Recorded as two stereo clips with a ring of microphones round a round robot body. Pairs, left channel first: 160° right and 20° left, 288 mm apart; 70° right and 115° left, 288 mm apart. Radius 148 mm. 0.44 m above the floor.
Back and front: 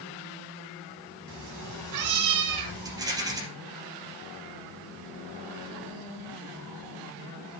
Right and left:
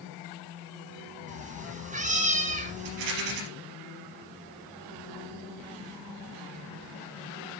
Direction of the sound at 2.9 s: 100° left.